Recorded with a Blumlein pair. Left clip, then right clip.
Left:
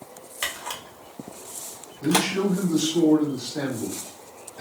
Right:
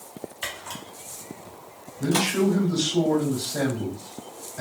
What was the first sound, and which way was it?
A camera shutter, 45° left.